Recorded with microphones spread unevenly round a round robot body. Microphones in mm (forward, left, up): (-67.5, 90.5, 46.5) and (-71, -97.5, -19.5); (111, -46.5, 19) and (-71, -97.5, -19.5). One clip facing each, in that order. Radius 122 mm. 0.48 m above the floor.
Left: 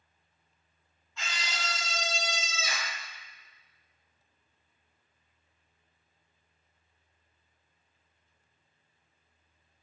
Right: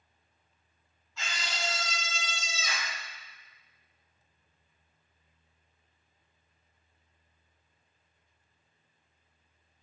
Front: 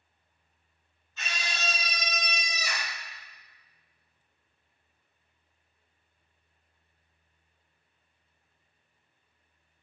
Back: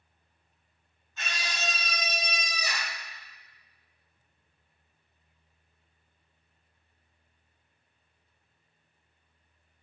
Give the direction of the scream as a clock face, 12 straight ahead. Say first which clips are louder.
Right 2 dB, even; 6 o'clock.